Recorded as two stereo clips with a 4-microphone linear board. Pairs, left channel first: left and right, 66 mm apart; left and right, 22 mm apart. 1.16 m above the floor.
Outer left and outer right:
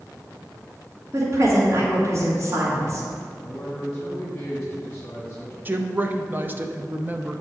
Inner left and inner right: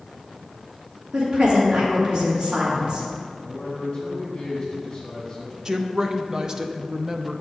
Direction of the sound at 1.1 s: 45° right (ahead or behind).